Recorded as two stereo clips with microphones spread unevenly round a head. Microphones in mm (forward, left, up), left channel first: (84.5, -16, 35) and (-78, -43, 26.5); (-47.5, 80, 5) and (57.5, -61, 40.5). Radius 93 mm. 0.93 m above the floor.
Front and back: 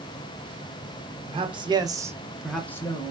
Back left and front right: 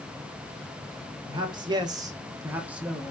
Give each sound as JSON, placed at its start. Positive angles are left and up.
{"t": 1.3, "sound": "a man speaking", "azimuth_deg": -125, "distance_m": 1.1}